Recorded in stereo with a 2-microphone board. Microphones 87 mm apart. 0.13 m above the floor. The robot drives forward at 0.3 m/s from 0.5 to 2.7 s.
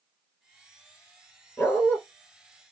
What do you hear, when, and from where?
1.6 s a dog barking: 20° left (ahead or behind), 1.1 m